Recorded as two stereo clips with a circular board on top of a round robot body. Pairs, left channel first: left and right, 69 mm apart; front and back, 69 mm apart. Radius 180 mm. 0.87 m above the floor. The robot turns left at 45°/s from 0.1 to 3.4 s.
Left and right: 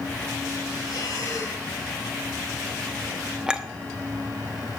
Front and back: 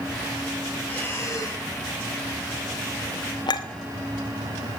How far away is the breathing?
About 6 m.